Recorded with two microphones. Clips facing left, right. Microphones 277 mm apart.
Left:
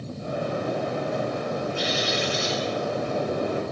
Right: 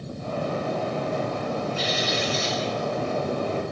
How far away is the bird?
About 8.5 m.